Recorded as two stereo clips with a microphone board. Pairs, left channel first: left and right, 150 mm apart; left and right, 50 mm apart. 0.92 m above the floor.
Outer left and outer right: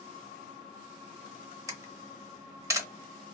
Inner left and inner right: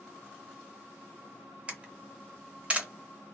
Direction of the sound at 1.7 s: 20° right (ahead or behind).